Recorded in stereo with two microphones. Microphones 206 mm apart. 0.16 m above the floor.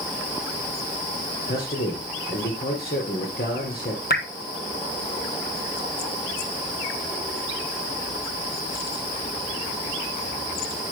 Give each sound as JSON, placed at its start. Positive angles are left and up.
{"t": 1.5, "sound": "a man speaking", "side_deg": 50, "distance_m": 3.0}
{"t": 4.1, "sound": "dripping", "side_deg": 50, "distance_m": 1.0}